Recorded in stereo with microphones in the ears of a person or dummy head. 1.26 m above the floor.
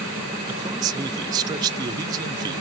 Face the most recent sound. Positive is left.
turn(degrees=-20)  # may be behind; listen again after turning